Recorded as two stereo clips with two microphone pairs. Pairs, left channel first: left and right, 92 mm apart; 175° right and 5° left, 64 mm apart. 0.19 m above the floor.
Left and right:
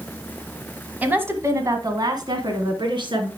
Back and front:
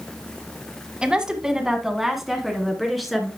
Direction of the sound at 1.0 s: 45° right.